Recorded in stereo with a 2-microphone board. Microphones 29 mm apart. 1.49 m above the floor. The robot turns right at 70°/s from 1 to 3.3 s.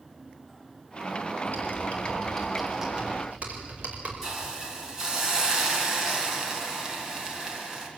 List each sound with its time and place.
1.5 s typing on a keyboard: 80° left, 5 m; by 4.1 s 50° right (ahead or behind), 5 m
4.2 s a hiss: 15° right (ahead or behind), 4 m